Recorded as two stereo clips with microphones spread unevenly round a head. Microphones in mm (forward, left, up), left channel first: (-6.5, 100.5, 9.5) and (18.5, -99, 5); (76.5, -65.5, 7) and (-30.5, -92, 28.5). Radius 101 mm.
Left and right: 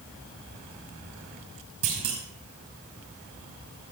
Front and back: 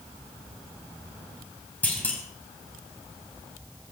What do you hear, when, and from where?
1.8 s a clunk: 65° right, 5 m